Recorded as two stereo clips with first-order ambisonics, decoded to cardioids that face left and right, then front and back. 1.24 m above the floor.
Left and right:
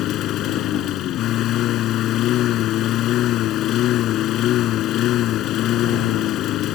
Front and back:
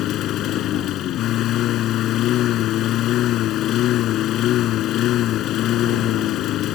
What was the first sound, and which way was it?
A lawn mower, 45° left.